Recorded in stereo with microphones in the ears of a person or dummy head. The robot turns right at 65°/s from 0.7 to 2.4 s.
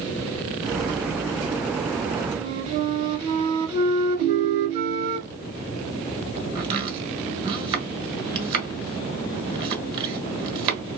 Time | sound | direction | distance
2.3 | a flute | 30° right (ahead or behind) | 1.3 m
4.2 | a ringtone | 45° right (ahead or behind) | 0.8 m
6.5 | chopping | 25° right (ahead or behind) | 1.8 m